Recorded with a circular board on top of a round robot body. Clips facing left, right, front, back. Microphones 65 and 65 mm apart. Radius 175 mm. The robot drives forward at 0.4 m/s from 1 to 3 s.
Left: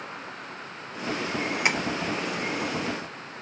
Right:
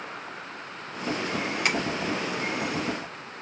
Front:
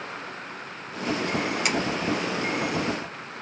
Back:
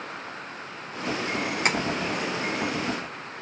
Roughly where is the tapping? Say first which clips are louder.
Left 1 dB, back 4 dB; behind left.